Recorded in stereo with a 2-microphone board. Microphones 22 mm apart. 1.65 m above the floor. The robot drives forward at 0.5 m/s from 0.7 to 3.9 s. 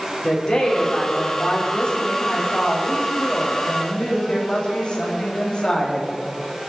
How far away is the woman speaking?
About 5.5 m.